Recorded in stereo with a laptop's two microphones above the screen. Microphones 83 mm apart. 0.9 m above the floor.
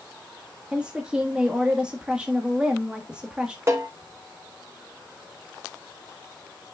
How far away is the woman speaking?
About 1.3 m.